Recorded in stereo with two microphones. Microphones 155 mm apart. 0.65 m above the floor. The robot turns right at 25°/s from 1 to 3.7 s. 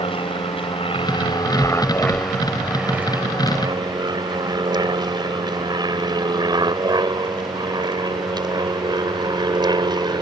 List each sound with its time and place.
0.0 s an aircraft: 35° left (ahead or behind); by 10.2 s 25° right (ahead or behind)